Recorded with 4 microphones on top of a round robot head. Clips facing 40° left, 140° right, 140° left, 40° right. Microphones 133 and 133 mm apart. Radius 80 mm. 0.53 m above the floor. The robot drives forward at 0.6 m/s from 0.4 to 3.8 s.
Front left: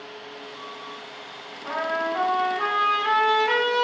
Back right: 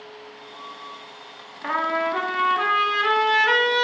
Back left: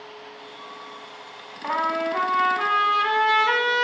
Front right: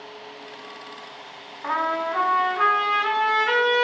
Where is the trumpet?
145° right, 0.9 m; by 3.9 s 165° right, 2 m.